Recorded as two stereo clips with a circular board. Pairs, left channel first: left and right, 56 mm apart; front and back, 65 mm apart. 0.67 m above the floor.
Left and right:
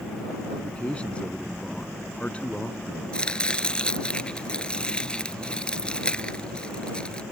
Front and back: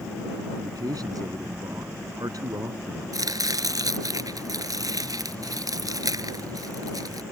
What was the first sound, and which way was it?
A man speaking, 160° left.